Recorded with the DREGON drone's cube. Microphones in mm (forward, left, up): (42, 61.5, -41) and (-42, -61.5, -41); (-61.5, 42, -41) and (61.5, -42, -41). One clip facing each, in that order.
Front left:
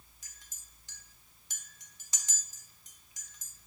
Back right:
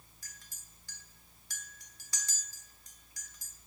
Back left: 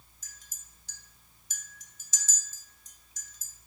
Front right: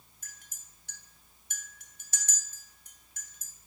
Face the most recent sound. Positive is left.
turn(degrees=-15)